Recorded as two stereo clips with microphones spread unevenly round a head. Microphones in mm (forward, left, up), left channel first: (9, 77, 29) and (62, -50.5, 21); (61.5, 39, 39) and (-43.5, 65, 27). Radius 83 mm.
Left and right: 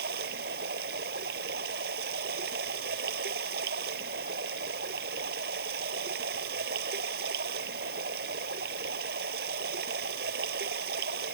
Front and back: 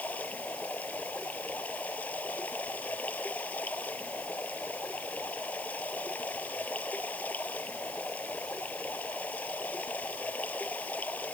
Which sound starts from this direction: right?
Running water, at 0.0 s.